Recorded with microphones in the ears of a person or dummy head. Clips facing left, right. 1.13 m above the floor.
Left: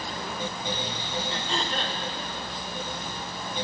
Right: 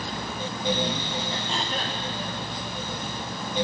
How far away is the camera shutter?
I don't hear a camera shutter.